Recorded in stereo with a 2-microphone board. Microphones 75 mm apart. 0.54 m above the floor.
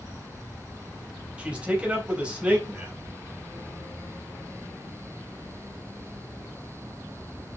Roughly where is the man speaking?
Centre.